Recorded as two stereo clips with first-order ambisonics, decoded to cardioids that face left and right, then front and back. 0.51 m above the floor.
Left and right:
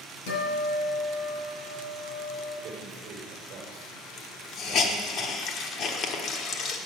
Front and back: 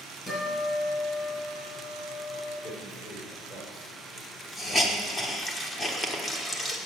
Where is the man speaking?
55° right, 2 m.